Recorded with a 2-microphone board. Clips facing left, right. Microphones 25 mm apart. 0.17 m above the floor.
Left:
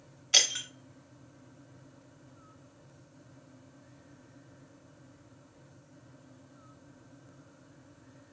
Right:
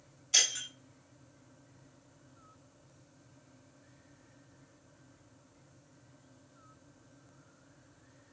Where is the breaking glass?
35° left (ahead or behind), 0.7 m.